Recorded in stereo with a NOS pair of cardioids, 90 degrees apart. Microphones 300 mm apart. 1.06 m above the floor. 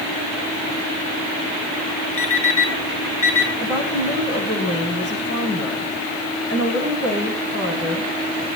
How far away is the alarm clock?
About 4 m.